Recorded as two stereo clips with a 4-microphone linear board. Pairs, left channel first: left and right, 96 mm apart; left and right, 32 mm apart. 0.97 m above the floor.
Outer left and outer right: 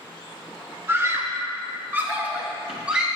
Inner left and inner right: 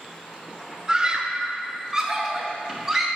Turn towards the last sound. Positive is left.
turn(degrees=-10)  # may be behind; listen again after turning